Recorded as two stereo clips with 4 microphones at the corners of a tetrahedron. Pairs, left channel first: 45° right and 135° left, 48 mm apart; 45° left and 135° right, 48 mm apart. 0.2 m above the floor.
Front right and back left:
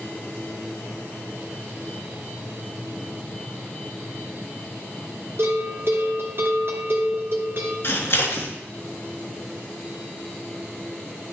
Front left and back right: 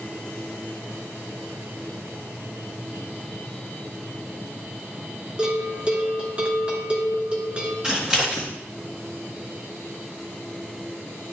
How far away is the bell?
About 2.5 m.